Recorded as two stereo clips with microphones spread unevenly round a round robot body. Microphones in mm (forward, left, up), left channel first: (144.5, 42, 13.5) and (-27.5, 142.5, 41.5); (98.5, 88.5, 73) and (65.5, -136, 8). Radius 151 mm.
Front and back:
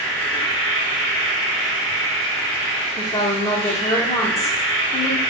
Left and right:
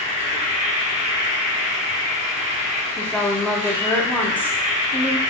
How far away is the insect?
About 1.2 m.